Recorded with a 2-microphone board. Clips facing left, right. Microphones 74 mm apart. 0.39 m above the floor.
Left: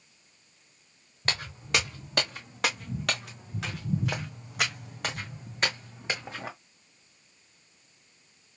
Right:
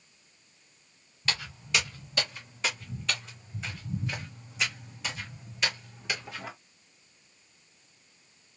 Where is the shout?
I don't hear a shout.